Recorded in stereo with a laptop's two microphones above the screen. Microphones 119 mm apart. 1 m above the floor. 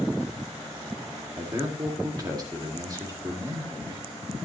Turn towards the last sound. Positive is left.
turn(degrees=-30)  # may be behind; listen again after turning